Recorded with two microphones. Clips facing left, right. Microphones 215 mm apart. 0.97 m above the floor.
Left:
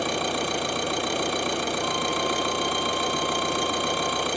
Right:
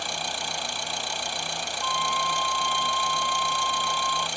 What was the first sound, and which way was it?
An engine running, 65° left (ahead or behind).